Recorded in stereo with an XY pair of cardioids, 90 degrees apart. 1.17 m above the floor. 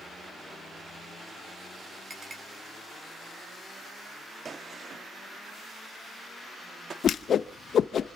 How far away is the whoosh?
About 0.7 m.